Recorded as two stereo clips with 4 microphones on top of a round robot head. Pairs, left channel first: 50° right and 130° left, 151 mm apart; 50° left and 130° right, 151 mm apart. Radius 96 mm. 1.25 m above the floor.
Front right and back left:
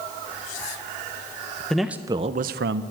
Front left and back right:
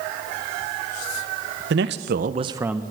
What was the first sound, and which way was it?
A man speaking, 135° right.